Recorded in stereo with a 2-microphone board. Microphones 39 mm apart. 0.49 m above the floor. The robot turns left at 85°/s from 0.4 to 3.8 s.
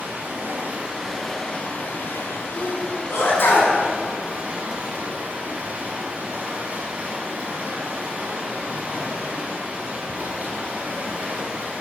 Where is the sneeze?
30° left (ahead or behind), 5.5 m; by 3.7 s 45° left (ahead or behind), 5.5 m.